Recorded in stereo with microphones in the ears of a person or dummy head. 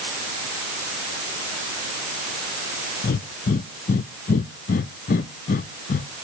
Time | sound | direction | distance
3.0 | breathing | 55° left (ahead or behind) | 0.6 m